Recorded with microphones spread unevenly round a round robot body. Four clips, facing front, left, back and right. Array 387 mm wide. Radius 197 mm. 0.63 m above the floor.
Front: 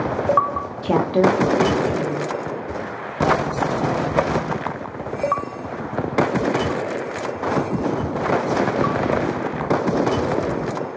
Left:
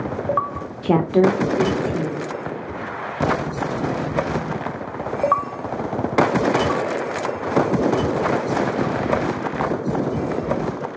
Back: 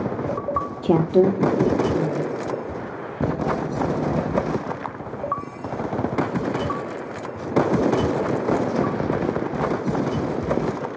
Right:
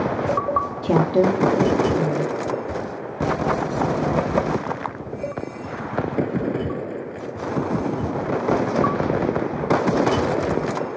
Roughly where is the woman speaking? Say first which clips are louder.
Left 3 dB, even; behind.